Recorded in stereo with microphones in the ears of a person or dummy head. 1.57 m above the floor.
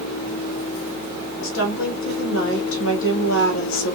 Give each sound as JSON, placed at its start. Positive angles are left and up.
{"t": 1.4, "sound": "a woman speaking", "side_deg": 85, "distance_m": 2.5}